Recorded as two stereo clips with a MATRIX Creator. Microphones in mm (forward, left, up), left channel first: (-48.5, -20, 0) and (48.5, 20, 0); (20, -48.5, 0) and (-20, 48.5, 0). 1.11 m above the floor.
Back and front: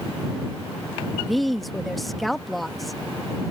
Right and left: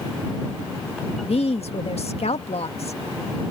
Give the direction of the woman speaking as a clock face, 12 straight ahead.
2 o'clock.